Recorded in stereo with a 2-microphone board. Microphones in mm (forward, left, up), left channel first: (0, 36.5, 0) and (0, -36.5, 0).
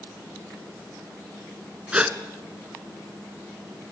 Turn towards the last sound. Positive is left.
turn(degrees=-20)  # may be behind; listen again after turning